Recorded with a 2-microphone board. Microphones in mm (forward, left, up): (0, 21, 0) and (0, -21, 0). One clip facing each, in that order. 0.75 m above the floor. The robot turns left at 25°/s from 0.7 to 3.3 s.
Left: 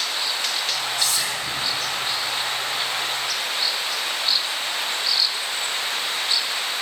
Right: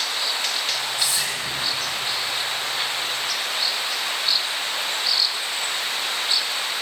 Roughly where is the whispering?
Right.